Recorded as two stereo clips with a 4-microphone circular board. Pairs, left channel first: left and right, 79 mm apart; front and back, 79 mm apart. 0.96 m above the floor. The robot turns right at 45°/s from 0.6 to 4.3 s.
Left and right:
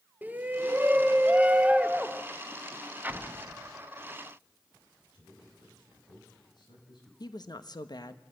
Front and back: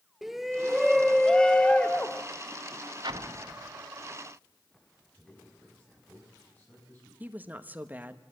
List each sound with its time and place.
0.2 s a shout: 95° right, 0.7 m; by 2.2 s 25° right, 0.7 m
3.0 s an explosion: 160° right, 0.8 m; by 3.8 s 120° right, 0.8 m
5.1 s a man speaking: 70° left, 8.5 m
7.2 s a woman speaking: 115° left, 1.1 m